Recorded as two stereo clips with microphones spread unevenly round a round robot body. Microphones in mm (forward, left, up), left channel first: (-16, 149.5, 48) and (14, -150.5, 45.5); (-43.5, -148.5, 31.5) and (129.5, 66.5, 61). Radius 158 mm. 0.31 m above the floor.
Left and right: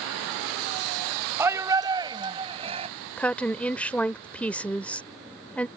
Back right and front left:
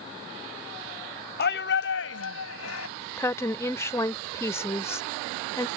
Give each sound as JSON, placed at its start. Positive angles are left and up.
{"t": 1.4, "sound": "a shout", "azimuth_deg": -165}
{"t": 3.2, "sound": "a woman speaking", "azimuth_deg": 175}